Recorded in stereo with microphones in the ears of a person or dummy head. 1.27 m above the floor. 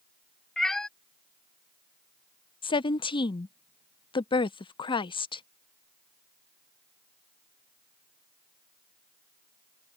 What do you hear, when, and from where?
0.6 s a cat meowing: 5° left (ahead or behind)
2.6 s a woman speaking: 30° left (ahead or behind)